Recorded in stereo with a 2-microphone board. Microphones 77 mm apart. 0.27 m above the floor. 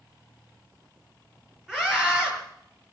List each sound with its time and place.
1.7 s a scream: 5° right (ahead or behind), 4.5 m